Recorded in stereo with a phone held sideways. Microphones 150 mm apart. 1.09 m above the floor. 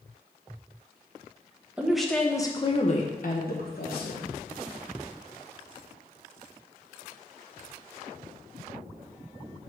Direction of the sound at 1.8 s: 10° right (ahead or behind).